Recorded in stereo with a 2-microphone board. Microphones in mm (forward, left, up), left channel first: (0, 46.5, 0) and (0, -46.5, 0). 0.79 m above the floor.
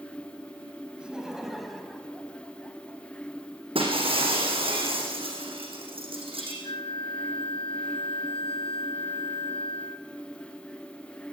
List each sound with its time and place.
1.0 s laughter: 10° right (ahead or behind), 4.5 m; by 3.0 s 15° left (ahead or behind), 5.5 m
3.8 s breaking glass: 85° right, 7 m
6.6 s a flute: 80° left, 1.7 m